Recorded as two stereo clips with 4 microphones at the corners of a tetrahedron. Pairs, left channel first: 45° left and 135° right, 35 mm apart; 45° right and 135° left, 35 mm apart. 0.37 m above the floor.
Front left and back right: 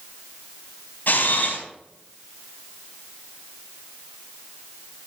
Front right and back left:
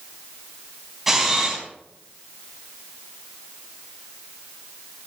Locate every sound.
1.1 s a camera shutter: 55° left, 3.5 m